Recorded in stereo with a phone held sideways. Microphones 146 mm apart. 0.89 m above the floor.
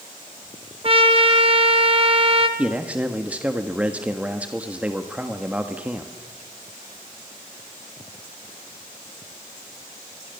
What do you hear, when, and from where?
0.8 s a trumpet: 40° right (ahead or behind), 2.0 m
2.6 s a man speaking: 10° right (ahead or behind), 1.3 m